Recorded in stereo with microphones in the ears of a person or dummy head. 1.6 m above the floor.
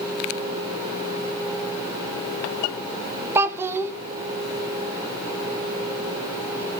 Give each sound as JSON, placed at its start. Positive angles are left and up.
{"t": 3.4, "sound": "a child speaking", "side_deg": -15, "distance_m": 0.7}